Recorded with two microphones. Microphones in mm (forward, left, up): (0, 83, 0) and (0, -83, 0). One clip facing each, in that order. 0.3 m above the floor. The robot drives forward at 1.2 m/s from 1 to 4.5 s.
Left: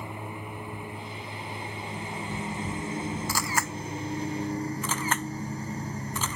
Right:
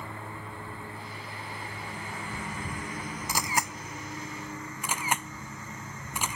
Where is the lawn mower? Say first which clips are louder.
Left 3 dB; 15° left (ahead or behind); by 6.4 s 35° left (ahead or behind).